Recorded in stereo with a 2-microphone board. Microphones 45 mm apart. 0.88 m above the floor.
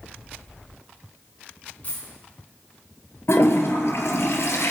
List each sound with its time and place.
1.8 s a dropped coin: 30° left (ahead or behind), 4.5 m
3.3 s a toilet flushing: 65° left (ahead or behind), 2.5 m